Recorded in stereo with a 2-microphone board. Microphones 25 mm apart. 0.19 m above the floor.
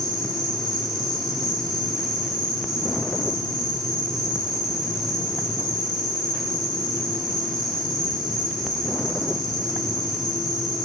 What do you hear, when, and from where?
0.0 s an insect: 10° left (ahead or behind), 3 m